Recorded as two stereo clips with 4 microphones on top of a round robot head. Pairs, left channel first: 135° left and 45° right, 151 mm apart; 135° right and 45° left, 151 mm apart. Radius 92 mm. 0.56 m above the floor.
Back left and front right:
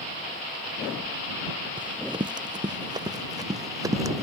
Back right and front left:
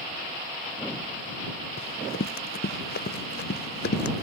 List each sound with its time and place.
1.8 s running footsteps: 105° right; by 4.2 s 115° right